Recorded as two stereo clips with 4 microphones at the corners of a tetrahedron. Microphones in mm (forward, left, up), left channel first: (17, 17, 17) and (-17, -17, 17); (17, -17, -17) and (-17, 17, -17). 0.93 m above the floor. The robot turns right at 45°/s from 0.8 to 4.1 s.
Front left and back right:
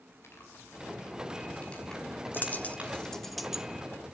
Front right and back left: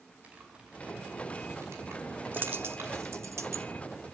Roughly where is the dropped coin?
Left.